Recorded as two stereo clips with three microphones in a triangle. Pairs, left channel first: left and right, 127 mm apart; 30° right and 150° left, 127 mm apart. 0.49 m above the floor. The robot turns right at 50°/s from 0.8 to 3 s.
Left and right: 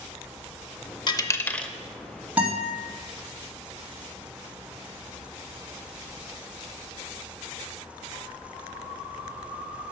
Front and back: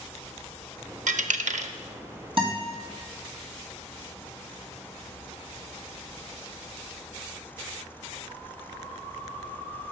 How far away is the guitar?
About 3 m.